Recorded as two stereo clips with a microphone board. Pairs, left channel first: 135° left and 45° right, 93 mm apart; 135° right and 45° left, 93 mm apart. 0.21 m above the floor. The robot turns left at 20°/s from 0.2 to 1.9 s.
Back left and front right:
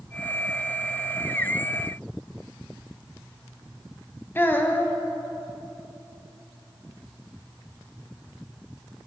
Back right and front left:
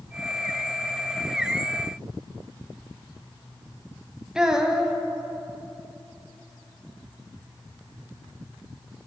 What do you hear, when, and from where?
4.3 s a child speaking: 120° left, 0.7 m